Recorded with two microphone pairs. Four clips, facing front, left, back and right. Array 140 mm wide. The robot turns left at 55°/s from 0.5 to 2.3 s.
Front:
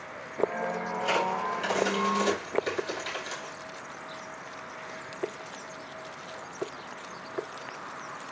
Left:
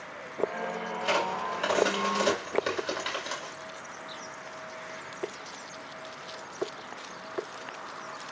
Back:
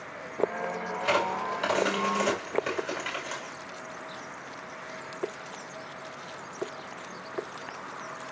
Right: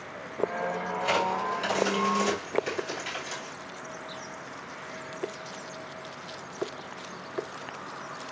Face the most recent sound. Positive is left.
turn(degrees=110)